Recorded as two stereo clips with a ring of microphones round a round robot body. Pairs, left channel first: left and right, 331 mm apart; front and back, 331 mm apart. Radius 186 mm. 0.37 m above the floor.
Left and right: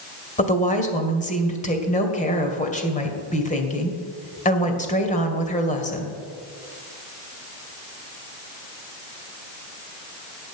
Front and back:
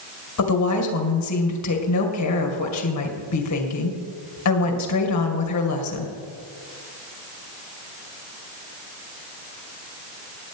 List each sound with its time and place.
0.4 s a woman speaking: 25° left, 2 m